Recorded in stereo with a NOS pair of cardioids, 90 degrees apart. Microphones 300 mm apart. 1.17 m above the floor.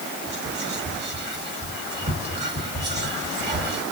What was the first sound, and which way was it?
Whispering, 35° right.